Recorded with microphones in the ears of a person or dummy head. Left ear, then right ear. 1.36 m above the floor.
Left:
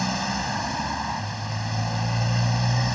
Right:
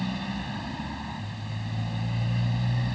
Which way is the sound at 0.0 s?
50° left (ahead or behind).